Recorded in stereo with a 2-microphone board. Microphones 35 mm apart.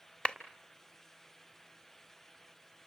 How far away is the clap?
About 1.4 m.